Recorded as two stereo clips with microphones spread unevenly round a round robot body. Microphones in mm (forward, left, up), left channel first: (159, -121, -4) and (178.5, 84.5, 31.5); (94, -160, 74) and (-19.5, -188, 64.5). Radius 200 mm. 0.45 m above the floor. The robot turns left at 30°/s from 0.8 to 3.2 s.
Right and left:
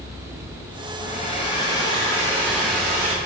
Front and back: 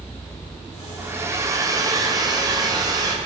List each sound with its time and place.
1.0 s a hair dryer: 115° right, 1.4 m; by 3.1 s straight behind, 1.4 m